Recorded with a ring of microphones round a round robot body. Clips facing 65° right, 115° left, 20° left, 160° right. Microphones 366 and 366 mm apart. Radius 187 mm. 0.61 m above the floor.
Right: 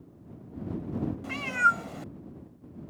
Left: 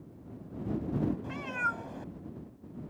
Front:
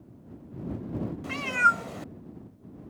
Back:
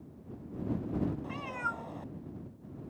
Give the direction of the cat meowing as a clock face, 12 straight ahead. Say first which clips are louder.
Right 3 dB, front 6 dB; 12 o'clock.